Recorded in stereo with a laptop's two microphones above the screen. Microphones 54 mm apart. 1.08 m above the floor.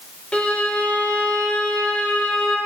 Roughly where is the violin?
Centre.